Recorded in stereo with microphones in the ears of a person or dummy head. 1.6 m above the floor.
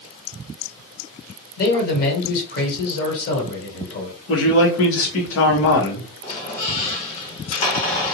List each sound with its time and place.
1.6 s a man speaking: 55° left (ahead or behind), 1.5 m
4.3 s a man speaking: 70° left (ahead or behind), 1.1 m
6.2 s a squeak: 40° left (ahead or behind), 1.4 m